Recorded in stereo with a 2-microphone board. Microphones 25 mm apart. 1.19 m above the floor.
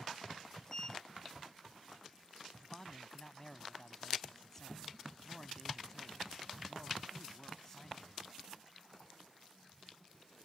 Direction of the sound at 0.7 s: 20° left (ahead or behind).